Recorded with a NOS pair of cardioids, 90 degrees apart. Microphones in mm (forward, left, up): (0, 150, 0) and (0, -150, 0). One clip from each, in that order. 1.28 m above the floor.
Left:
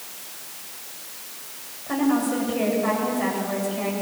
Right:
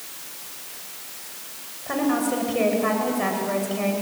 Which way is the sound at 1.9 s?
30° right.